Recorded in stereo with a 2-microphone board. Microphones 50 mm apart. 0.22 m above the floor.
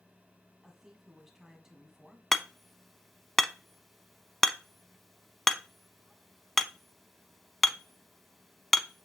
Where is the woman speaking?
10° right (ahead or behind), 2 m.